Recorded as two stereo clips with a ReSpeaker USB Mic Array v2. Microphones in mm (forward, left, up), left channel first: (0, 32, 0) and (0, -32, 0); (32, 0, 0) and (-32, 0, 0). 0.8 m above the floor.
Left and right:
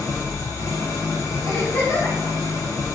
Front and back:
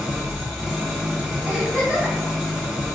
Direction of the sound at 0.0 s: 105° left.